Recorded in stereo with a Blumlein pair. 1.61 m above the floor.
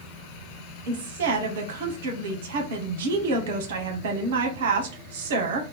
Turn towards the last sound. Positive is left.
turn(degrees=-55)